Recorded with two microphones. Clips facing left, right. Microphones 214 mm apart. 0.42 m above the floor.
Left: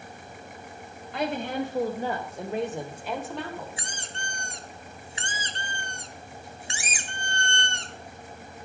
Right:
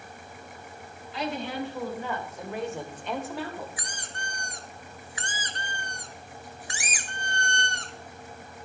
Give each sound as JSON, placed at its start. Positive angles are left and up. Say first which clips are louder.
{"t": 1.1, "sound": "a woman speaking", "louder": "left 3 dB", "side_deg": 55, "distance_m": 2.5}
{"t": 3.8, "sound": "a squeak", "louder": "left 1 dB", "side_deg": 25, "distance_m": 0.8}